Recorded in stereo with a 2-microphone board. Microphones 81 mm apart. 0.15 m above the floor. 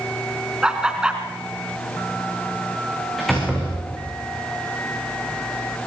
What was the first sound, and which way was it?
Laughter, 10° right (ahead or behind).